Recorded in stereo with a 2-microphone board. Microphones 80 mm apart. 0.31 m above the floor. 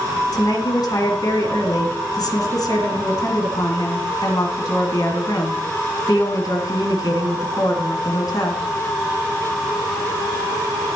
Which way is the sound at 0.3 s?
50° left (ahead or behind).